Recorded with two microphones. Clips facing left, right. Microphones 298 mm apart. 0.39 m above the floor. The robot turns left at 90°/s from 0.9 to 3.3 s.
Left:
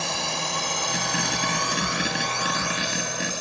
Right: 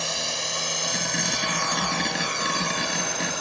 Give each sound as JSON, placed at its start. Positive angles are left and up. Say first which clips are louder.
{"t": 0.0, "sound": "a drone", "louder": "left 2 dB", "side_deg": 60}